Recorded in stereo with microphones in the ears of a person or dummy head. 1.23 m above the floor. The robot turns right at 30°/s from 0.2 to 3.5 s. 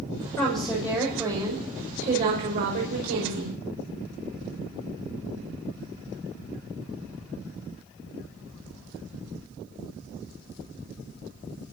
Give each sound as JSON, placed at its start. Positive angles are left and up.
{"t": 0.4, "sound": "a woman speaking", "azimuth_deg": 170, "distance_m": 5.5}